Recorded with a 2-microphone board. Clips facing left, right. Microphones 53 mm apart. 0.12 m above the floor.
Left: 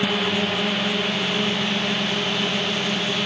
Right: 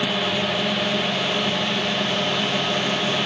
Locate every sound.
0.0 s a drone: 20° left (ahead or behind); by 3.3 s 10° left (ahead or behind)